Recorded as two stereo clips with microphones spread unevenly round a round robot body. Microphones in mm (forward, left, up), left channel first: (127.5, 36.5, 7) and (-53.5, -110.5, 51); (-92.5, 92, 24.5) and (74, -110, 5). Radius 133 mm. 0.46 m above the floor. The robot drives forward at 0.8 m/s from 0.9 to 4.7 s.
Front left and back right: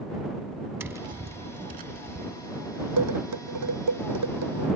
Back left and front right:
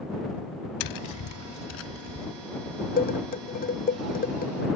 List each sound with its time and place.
0.8 s tapping: 140° left; by 2.3 s 165° left
3.0 s dishes clattering: 170° right; by 4.7 s 175° right